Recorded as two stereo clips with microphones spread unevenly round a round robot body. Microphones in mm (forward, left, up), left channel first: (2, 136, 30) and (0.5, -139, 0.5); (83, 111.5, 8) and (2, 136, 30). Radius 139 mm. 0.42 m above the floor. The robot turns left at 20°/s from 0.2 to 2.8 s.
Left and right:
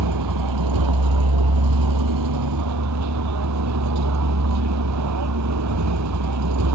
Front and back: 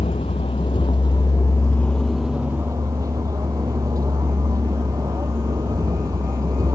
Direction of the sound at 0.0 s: 70° right.